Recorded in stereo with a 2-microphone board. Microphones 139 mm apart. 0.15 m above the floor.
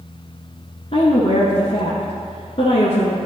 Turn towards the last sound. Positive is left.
turn(degrees=50)  # may be behind; listen again after turning